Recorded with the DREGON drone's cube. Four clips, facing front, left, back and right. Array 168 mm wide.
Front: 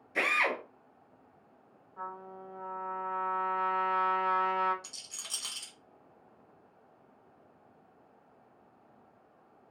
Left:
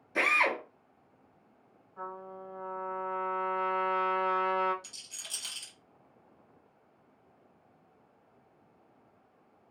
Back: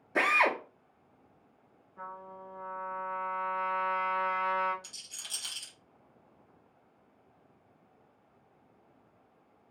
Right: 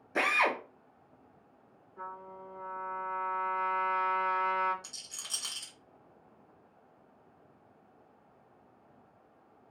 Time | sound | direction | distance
0.1 | a drill | 155° right | 0.7 m
2.0 | a trumpet | 30° left | 1.1 m
4.8 | a rattle | 50° right | 1.4 m